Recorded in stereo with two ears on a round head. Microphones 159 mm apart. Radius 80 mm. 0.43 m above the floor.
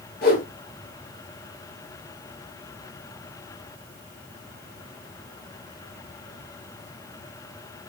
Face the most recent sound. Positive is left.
turn(degrees=55)  # may be behind; listen again after turning